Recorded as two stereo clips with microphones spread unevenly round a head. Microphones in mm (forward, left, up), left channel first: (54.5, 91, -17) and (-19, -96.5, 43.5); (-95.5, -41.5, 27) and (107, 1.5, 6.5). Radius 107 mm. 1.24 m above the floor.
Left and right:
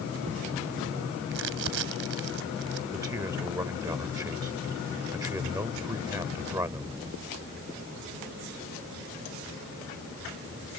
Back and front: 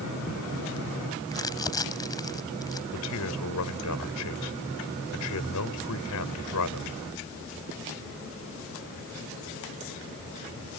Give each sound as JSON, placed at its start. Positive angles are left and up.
{"t": 1.3, "sound": "crumpling", "azimuth_deg": -95}
{"t": 2.9, "sound": "a man speaking", "azimuth_deg": 175}